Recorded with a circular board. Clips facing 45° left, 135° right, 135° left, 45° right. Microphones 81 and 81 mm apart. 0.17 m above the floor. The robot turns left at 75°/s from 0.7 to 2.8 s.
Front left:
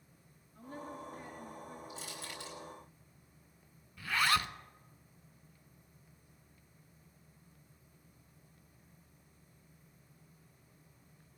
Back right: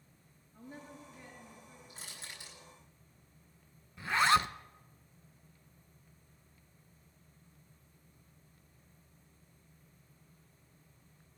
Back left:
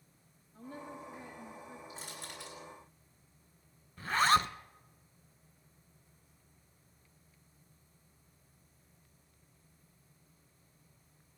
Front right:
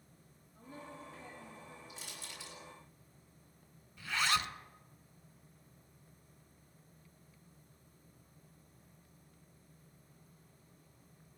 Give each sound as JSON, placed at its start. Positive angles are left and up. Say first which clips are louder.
{"t": 0.5, "sound": "a woman speaking", "louder": "front left 4 dB, back left 4 dB", "azimuth_deg": 155, "distance_m": 6.0}
{"t": 1.9, "sound": "crushing", "louder": "front left 5 dB, back left 4 dB", "azimuth_deg": -175, "distance_m": 6.5}
{"t": 4.0, "sound": "a zipper", "louder": "back right 4 dB, back left 7 dB", "azimuth_deg": 165, "distance_m": 0.5}